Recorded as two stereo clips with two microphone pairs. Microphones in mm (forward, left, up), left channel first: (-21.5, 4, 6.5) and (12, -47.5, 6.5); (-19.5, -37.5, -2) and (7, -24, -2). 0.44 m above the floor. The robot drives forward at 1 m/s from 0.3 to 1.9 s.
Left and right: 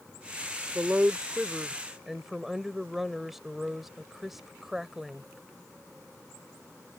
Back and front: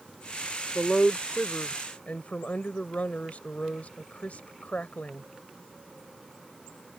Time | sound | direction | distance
0.8 | a woman speaking | 95° right | ?